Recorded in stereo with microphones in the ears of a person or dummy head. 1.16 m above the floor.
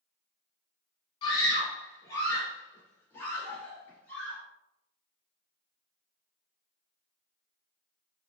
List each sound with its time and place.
1.2 s a scream: 30° left (ahead or behind), 1.2 m; by 4.4 s 10° left (ahead or behind), 2.5 m